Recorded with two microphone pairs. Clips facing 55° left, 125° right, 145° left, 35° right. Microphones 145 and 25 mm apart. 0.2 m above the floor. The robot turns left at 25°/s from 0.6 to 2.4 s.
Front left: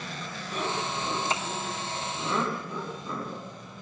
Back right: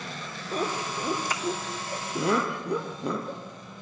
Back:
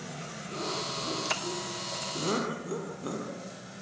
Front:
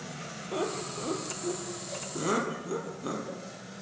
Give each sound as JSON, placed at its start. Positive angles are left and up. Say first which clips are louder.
{"t": 0.5, "sound": "laughter", "louder": "back right 2 dB, front 1 dB", "azimuth_deg": -75, "distance_m": 5.0}